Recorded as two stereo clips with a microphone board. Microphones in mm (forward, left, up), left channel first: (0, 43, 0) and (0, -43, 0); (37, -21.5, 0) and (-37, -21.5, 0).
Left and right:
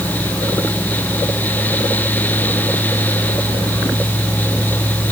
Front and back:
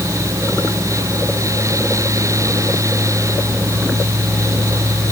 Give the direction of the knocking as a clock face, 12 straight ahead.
I don't hear knocking.